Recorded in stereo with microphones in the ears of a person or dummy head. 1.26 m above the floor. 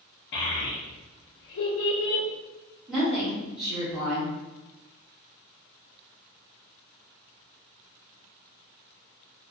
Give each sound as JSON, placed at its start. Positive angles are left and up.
{"t": 0.3, "sound": "a child speaking", "side_deg": 55, "distance_m": 0.6}
{"t": 2.9, "sound": "a woman speaking", "side_deg": -5, "distance_m": 1.4}